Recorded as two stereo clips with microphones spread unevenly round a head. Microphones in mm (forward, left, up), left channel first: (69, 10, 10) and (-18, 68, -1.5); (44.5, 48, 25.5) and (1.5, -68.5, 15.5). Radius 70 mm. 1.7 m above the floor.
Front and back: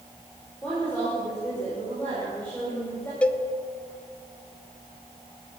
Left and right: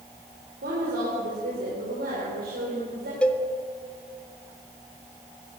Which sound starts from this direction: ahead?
A cowbell, at 3.2 s.